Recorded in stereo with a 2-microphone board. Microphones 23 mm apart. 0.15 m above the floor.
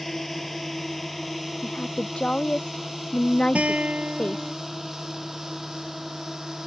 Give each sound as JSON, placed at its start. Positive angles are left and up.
{"t": 0.0, "sound": "a drone", "side_deg": 10}
{"t": 1.6, "sound": "a woman speaking", "side_deg": 45}
{"t": 3.5, "sound": "a guitar", "side_deg": -65}